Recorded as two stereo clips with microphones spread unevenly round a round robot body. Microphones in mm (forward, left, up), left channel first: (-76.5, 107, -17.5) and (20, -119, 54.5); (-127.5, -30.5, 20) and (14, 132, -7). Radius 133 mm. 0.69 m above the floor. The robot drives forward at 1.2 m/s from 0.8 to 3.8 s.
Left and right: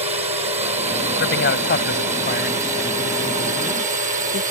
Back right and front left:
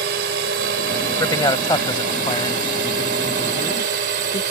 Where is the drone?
5° left; by 4.5 s straight ahead.